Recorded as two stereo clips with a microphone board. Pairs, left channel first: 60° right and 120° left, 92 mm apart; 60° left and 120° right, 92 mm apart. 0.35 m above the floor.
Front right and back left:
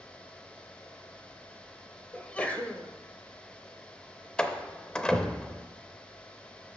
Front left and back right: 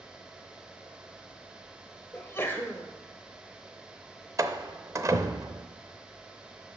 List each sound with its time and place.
2.1 s a sneeze: 10° left, 1.3 m
4.4 s a door slam: 135° right, 0.6 m